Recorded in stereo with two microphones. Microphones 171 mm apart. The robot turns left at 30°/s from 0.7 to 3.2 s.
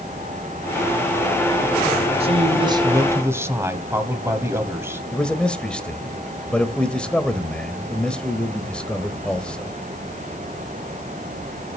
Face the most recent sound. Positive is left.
turn(degrees=5)  # may be behind; listen again after turning